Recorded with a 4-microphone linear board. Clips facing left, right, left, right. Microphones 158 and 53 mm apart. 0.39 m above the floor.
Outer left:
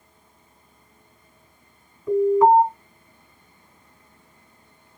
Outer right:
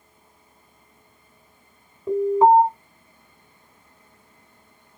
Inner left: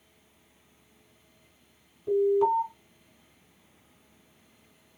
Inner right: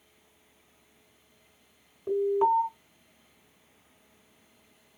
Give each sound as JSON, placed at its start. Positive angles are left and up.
{"t": 2.1, "sound": "an alarm", "side_deg": -30, "distance_m": 2.5}